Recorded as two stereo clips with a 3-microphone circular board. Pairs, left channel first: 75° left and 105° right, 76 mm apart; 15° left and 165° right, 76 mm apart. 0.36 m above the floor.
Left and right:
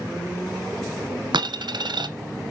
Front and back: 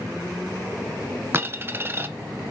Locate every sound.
1.3 s a dropped coin: 105° right, 0.6 m